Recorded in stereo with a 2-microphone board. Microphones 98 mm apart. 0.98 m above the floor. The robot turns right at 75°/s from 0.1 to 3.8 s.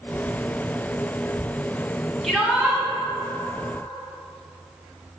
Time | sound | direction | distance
2.2 | a shout | 175° left | 2.5 m